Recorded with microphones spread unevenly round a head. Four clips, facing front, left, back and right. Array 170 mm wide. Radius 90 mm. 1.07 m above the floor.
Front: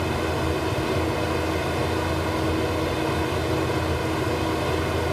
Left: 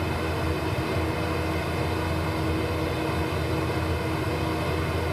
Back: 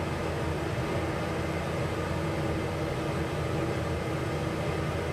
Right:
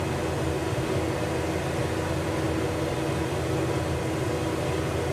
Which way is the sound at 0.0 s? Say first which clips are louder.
Even, front 7 dB; 5° left.